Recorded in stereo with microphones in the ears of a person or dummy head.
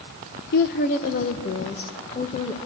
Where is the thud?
No thud in this recording.